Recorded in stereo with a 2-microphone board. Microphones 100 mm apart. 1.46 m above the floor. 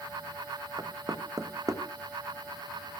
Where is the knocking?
30° right (ahead or behind), 0.9 m.